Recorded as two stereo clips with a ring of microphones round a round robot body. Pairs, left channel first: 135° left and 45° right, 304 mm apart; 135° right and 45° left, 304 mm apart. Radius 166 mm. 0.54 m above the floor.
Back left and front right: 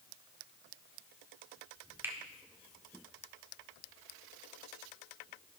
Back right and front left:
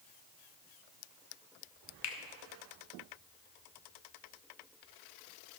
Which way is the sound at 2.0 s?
125° right.